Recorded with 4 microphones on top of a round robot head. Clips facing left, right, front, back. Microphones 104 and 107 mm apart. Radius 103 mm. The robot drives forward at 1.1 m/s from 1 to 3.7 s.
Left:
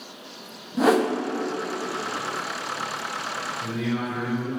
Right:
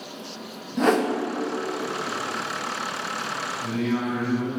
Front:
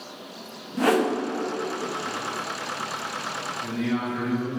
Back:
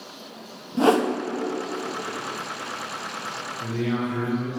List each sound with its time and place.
0.8 s a whoosh: 165° left, 0.8 m; by 1.1 s 170° left, 0.8 m
3.6 s a man speaking: 165° left, 3 m